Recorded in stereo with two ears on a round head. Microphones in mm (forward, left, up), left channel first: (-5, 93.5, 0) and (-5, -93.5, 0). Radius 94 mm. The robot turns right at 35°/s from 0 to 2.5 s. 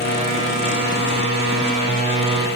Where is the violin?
No violin in this recording.